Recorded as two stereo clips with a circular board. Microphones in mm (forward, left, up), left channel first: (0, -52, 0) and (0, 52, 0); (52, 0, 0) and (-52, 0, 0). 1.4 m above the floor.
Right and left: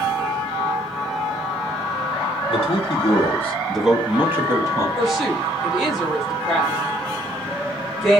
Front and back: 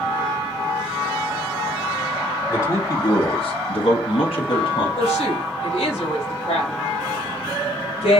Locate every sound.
2.5 s a man speaking: 70° right, 0.7 m; by 4.9 s 30° left, 1.1 m
5.0 s a woman speaking: straight ahead, 1.5 m